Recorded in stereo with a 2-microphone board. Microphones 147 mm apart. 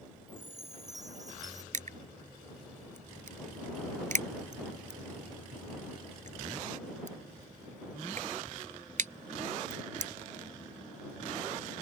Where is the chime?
25° right (ahead or behind).